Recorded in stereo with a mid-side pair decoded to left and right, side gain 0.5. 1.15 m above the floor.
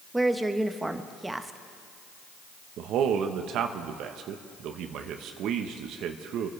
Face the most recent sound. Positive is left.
turn(degrees=-70)